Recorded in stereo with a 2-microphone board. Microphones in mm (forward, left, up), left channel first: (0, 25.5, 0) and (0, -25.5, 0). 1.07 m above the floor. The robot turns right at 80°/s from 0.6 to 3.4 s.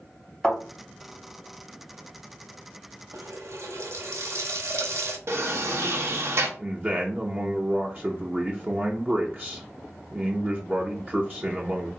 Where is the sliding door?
55° right (ahead or behind), 0.8 m.